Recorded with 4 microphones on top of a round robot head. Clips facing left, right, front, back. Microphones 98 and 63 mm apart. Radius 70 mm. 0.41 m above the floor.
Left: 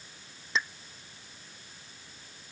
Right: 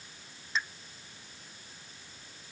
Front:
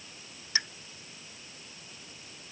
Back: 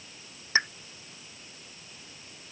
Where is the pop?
125° left.